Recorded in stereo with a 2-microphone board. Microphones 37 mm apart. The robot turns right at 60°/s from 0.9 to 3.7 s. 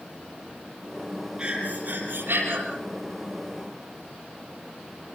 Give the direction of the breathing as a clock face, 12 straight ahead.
5 o'clock.